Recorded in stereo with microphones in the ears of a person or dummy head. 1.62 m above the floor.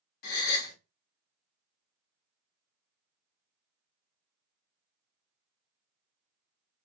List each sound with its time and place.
0.2 s a gasp: 60° left (ahead or behind), 1.0 m